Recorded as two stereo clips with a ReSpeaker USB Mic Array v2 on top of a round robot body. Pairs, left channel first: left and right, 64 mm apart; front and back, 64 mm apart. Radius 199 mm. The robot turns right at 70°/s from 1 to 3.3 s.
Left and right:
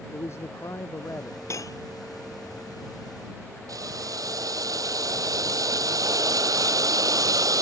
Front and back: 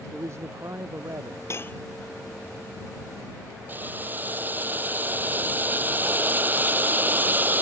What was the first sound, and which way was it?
A man speaking, 135° left.